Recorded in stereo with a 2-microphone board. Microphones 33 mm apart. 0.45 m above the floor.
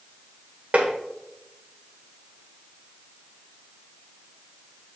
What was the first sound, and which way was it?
Tapping, 50° right (ahead or behind).